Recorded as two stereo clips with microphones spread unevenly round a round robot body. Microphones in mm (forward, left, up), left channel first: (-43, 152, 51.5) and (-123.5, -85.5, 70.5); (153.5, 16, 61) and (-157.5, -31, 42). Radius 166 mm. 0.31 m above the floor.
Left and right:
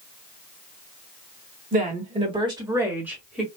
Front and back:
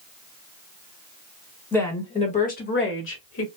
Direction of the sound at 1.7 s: 75° right.